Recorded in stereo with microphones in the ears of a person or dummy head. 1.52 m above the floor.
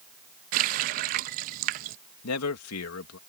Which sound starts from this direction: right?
A running tap, at 0.5 s.